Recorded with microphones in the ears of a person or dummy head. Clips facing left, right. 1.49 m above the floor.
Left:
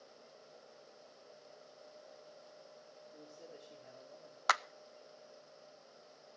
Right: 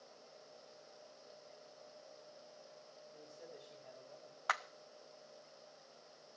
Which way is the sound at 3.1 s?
15° left (ahead or behind).